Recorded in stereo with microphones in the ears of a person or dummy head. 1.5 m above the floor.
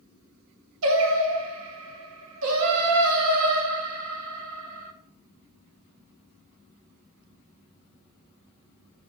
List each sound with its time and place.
0.8 s singing: 80° right, 0.6 m